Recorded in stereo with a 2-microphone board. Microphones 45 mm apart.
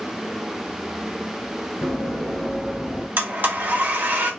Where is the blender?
45° right (ahead or behind), 0.9 m.